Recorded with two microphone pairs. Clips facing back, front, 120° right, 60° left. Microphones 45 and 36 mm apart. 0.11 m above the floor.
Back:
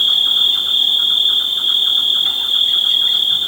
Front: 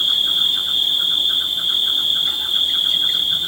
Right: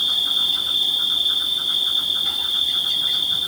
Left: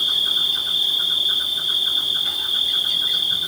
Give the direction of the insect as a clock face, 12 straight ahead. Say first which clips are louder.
Back 3 dB, even; 7 o'clock.